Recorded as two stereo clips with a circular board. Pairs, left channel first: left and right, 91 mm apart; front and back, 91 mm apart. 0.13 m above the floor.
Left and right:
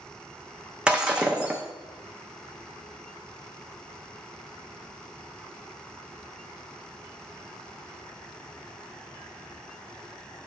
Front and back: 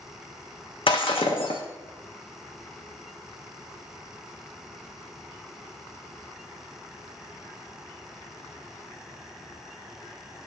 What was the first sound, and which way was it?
Breaking glass, 10° right.